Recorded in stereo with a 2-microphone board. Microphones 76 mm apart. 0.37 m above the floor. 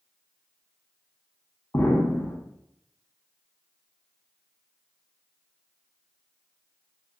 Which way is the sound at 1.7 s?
30° left (ahead or behind).